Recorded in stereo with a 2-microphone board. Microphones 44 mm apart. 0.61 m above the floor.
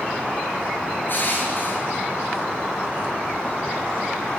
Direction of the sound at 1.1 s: 50° left (ahead or behind).